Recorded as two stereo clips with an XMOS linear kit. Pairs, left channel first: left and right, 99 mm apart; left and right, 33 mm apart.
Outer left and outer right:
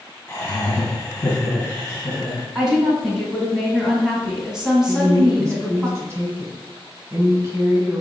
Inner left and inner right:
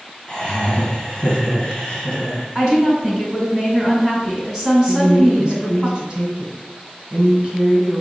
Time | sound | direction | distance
0.3 | laughter | 20° left (ahead or behind) | 2.0 m
2.5 | a woman speaking | 5° right (ahead or behind) | 1.9 m
4.9 | a woman speaking | 30° right (ahead or behind) | 1.5 m